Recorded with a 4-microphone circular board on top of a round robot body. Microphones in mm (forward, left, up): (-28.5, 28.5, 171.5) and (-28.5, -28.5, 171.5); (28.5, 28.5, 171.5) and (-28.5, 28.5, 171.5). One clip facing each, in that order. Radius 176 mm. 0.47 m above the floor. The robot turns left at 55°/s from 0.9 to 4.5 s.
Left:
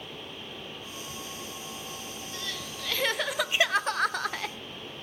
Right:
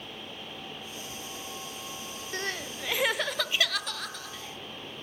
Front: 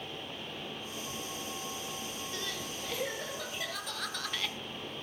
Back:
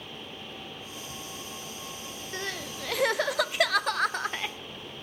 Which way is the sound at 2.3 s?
130° right.